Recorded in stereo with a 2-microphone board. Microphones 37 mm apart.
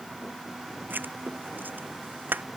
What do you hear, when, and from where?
0.9 s writing: 60° right (ahead or behind)